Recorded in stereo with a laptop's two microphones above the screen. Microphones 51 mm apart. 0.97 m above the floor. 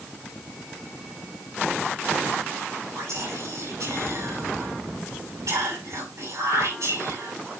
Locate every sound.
3.0 s whispering: 70° right (ahead or behind), 7 m